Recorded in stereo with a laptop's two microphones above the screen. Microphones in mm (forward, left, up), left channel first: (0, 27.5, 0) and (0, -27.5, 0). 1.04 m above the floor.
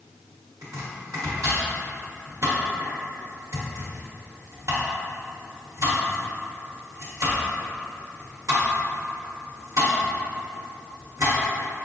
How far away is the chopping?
About 1.2 m.